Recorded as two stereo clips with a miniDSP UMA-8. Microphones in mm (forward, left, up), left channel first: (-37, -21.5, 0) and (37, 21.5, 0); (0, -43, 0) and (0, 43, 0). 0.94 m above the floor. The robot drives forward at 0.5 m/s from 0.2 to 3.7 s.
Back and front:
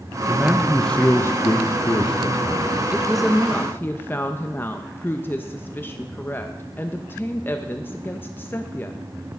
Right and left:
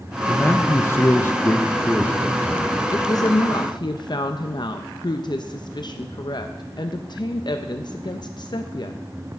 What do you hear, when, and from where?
0.3 s a man speaking: 35° right, 0.6 m; by 2.8 s 165° right, 1.1 m
2.9 s a woman speaking: 45° right, 0.7 m; by 9.0 s 85° right, 0.5 m